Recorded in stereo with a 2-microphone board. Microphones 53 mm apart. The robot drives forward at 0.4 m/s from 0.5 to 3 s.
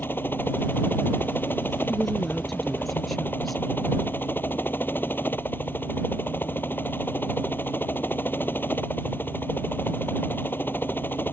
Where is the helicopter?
40° left (ahead or behind).